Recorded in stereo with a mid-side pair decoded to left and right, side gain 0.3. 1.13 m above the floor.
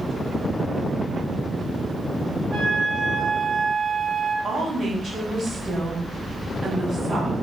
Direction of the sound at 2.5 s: 70° right.